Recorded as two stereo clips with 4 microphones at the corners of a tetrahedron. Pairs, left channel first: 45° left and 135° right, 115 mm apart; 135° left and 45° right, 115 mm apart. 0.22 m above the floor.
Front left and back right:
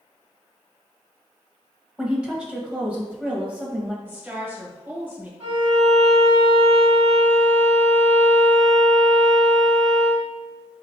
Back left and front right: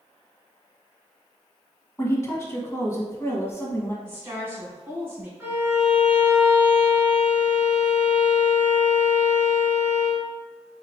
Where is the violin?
110° right, 1.9 m.